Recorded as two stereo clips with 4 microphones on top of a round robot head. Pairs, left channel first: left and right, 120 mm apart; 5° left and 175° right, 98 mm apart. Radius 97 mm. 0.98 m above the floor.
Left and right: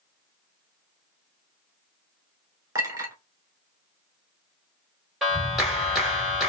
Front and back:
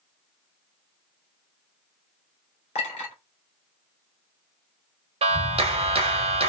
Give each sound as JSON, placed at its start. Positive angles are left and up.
{"t": 2.8, "sound": "a clink", "azimuth_deg": -30, "distance_m": 1.9}
{"t": 5.2, "sound": "a clap", "azimuth_deg": 180, "distance_m": 1.3}